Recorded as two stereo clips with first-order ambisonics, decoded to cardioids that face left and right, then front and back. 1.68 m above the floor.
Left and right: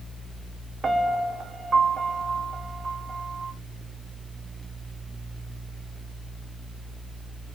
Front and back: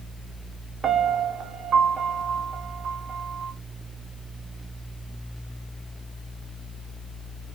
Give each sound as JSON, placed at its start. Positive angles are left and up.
{"t": 0.8, "sound": "a piano", "azimuth_deg": -140, "distance_m": 0.6}